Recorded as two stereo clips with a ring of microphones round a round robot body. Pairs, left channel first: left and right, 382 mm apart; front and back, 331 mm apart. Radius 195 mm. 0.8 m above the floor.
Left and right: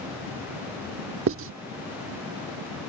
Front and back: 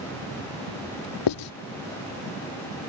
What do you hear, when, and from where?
1.3 s writing: 30° right